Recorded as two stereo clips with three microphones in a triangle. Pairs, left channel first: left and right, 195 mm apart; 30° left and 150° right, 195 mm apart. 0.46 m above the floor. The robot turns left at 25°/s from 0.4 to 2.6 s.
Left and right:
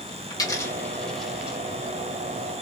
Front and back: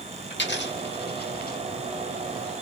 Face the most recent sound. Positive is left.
turn(degrees=-35)